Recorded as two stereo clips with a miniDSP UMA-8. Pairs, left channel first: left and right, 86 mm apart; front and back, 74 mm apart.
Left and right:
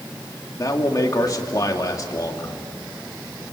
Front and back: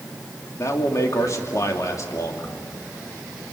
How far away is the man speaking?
About 2.5 m.